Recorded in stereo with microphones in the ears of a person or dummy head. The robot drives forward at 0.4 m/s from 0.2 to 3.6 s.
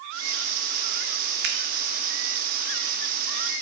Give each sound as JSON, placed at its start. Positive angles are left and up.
{"t": 1.4, "sound": "a finger snap", "side_deg": -55, "distance_m": 0.8}